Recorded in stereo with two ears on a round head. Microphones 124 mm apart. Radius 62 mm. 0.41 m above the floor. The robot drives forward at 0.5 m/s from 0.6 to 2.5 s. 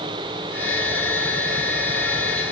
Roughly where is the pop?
I don't hear a pop.